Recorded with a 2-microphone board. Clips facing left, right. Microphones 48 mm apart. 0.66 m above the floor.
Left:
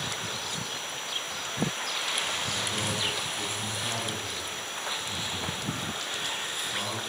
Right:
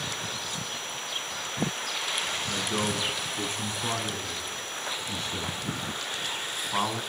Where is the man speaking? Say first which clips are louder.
Right 2 dB; 55° right (ahead or behind), 7.5 m; by 7.0 s 60° right (ahead or behind), 5.5 m.